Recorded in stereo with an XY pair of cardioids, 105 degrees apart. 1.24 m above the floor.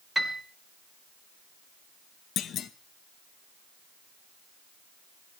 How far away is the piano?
About 2 m.